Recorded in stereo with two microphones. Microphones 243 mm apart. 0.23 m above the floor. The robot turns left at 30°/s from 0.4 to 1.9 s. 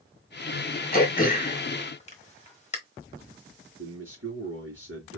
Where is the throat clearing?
35° left (ahead or behind), 1.2 m; by 2.8 s 30° left (ahead or behind), 1.2 m.